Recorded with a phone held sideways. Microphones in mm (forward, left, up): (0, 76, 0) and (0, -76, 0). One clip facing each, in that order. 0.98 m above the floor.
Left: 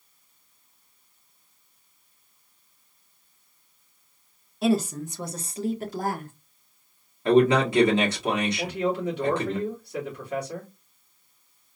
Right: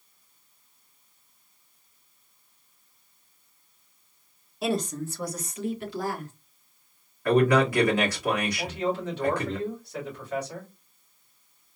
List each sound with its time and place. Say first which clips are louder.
4.6 s a woman speaking: left 4 dB; centre (ahead or behind), 0.8 m; by 6.3 s 55° left (ahead or behind), 1.1 m
7.2 s a man speaking: left 2 dB; 25° left (ahead or behind), 1.7 m
8.6 s a man speaking: left 2 dB; 15° left (ahead or behind), 2.5 m